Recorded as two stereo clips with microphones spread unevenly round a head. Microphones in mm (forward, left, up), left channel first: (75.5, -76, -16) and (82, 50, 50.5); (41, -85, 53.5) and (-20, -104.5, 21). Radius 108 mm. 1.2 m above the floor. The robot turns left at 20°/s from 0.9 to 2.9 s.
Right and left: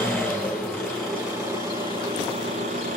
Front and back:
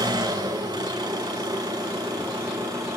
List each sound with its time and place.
0.0 s an engine running: 175° left, 6 m; by 3.0 s 135° left, 6 m